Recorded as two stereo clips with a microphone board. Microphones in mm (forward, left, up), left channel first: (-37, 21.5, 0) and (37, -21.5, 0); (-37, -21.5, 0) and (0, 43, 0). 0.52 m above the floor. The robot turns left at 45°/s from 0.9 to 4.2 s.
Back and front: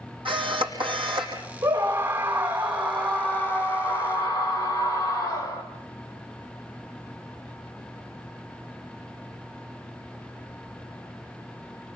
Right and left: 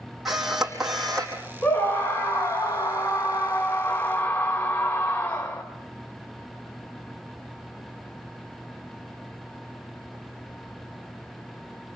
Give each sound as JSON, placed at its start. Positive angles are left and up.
{"t": 0.2, "sound": "a camera shutter", "azimuth_deg": -25, "distance_m": 5.0}
{"t": 1.6, "sound": "a scream", "azimuth_deg": -65, "distance_m": 2.0}